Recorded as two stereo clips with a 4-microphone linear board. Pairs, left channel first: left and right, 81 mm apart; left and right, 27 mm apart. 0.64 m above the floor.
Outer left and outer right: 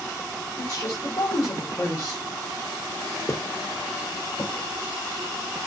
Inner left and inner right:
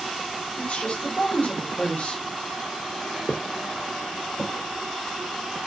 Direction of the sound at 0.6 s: 40° left (ahead or behind).